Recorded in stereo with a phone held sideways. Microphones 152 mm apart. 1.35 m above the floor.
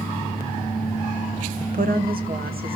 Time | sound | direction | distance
1.6 | a woman speaking | 60° right (ahead or behind) | 1.2 m